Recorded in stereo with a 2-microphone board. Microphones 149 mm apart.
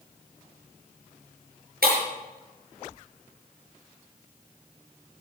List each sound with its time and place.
1.8 s breaking glass: 80° right, 7 m